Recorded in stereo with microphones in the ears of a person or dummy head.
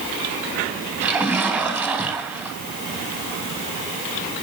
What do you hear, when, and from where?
1.0 s a splash: 10° right (ahead or behind), 4.5 m